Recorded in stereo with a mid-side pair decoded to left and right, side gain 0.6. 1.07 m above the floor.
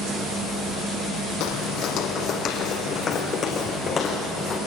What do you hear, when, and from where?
1.4 s footsteps: 65° left, 3.5 m; by 4.6 s 30° left, 6.5 m